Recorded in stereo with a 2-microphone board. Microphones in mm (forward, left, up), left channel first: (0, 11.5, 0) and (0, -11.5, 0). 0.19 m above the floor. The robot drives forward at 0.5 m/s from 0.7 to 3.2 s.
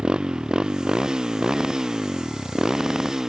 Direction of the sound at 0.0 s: 40° right (ahead or behind).